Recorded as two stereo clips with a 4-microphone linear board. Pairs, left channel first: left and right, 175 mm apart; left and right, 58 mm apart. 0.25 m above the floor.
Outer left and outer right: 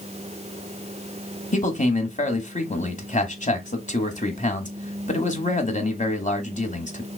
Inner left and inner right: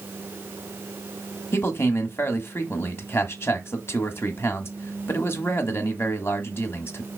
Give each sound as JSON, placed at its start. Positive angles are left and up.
{"t": 1.5, "sound": "a man speaking", "side_deg": 45, "distance_m": 1.3}